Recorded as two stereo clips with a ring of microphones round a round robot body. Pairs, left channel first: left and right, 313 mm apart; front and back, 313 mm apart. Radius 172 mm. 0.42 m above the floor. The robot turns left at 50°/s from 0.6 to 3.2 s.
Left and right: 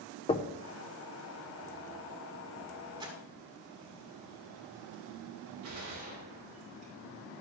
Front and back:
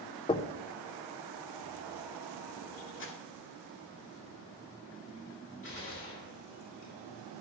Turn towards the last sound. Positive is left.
turn(degrees=-45)